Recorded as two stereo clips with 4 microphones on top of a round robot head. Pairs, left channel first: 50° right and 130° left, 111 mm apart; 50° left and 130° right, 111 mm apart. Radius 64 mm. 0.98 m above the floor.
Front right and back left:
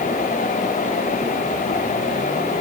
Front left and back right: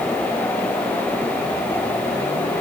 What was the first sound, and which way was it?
Only background noise.